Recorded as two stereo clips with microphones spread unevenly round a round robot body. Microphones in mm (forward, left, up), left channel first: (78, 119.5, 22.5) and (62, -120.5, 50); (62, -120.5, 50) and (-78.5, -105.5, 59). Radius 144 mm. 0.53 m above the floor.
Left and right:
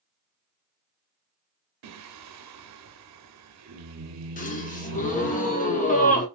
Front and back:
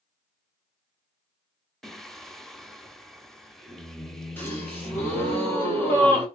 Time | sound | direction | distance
1.8 | singing | 90° right | 0.7 m
4.4 | a gasp | 65° left | 1.3 m